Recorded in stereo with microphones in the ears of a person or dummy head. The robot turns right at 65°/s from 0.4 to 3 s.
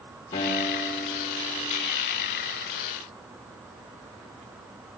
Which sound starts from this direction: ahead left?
A guitar, at 0.3 s.